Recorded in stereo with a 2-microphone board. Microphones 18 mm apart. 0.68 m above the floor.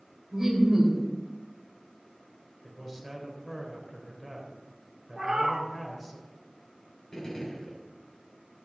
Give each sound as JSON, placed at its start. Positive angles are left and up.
{"t": 0.3, "sound": "laughter", "side_deg": -15, "distance_m": 3.0}
{"t": 2.6, "sound": "a man speaking", "side_deg": 0, "distance_m": 3.0}
{"t": 5.2, "sound": "a cat meowing", "side_deg": -40, "distance_m": 1.4}
{"t": 7.1, "sound": "a gunshot", "side_deg": 40, "distance_m": 3.0}